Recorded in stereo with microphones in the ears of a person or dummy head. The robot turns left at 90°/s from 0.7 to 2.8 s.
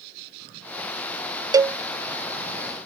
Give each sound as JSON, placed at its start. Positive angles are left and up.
{"t": 1.5, "sound": "a cowbell", "side_deg": -20}